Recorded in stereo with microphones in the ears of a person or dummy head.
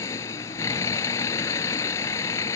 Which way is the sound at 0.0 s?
20° left (ahead or behind).